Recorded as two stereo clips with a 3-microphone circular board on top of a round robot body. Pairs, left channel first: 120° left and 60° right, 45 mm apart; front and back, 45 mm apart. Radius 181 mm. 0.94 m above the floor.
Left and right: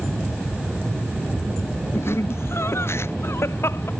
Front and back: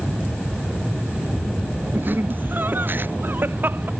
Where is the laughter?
140° left.